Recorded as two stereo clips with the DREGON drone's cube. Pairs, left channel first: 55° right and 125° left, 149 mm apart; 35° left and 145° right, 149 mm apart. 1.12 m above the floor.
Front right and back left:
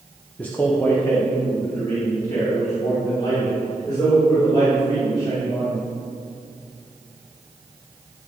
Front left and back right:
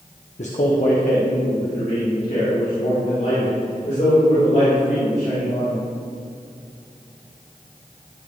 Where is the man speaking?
25° left, 1.0 m; by 5.9 s 10° left, 8 m.